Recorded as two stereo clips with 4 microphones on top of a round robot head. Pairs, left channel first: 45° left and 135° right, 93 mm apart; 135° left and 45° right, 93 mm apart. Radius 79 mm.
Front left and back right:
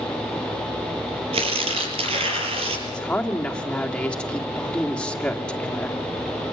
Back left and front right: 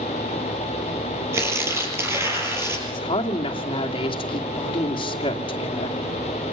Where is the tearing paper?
110° right, 5.5 m.